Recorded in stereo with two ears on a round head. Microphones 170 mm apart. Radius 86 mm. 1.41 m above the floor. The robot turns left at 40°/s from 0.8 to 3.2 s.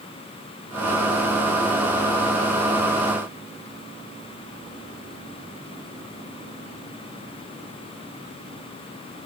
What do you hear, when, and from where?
Only background noise.